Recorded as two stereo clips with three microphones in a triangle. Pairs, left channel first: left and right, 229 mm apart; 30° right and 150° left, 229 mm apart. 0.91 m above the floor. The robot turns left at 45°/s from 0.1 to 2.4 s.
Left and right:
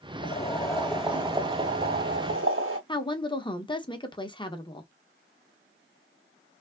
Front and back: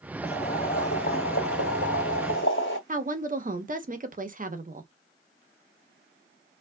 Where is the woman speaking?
145° left, 0.8 m.